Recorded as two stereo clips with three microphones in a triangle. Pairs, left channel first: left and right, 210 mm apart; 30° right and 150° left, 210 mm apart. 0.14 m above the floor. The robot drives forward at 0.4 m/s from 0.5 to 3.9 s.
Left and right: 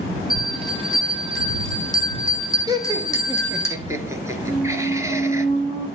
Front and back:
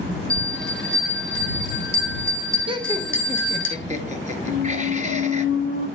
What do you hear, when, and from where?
0.3 s a bell: 160° left, 3.5 m; by 3.7 s 165° left, 5 m
2.7 s laughter: 155° right, 1.3 m; by 5.5 s 160° right, 1.7 m
4.5 s a squeak: 155° left, 6 m